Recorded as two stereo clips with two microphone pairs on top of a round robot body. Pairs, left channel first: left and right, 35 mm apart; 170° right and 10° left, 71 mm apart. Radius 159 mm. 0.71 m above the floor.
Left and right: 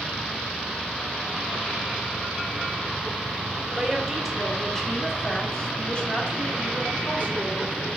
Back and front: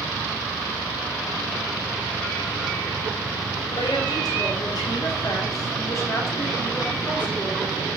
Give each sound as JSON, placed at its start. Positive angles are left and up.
{"t": 3.7, "sound": "a woman speaking", "azimuth_deg": -175, "distance_m": 2.0}